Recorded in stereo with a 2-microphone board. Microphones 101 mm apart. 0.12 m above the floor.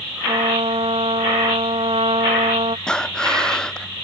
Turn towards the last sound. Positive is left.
turn(degrees=10)  # may be behind; listen again after turning